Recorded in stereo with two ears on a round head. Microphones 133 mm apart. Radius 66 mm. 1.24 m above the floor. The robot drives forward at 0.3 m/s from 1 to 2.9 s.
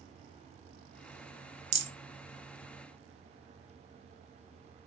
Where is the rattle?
45° right (ahead or behind), 1.1 m.